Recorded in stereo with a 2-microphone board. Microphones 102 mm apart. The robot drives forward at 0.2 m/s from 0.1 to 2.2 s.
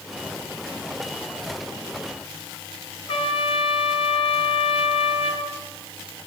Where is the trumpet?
65° left (ahead or behind), 1.2 m.